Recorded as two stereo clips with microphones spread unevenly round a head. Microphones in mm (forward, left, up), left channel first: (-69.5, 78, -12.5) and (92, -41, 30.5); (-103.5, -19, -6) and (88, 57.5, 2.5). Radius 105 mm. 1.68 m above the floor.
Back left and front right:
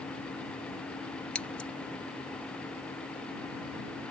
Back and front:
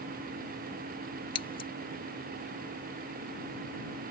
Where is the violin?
I don't hear a violin.